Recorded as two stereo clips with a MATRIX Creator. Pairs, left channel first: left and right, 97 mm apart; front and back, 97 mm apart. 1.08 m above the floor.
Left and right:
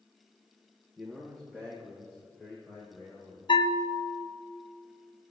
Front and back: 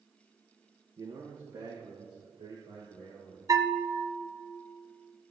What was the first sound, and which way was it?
A man speaking, 170° right.